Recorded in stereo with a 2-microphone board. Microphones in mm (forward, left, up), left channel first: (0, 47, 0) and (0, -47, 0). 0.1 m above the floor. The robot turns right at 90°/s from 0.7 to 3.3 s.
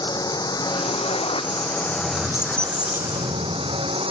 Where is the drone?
50° left; by 4.1 s 80° right.